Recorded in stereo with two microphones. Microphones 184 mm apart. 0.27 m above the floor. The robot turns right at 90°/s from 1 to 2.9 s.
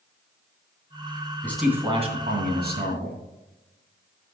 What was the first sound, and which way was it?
A man speaking, 165° left.